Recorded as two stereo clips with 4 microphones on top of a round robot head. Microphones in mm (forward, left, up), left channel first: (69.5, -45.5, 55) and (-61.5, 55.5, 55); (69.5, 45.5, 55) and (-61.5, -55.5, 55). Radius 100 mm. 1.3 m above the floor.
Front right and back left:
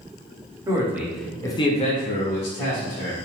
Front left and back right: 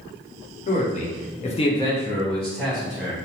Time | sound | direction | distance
0.7 | a man speaking | 75° left | 0.8 m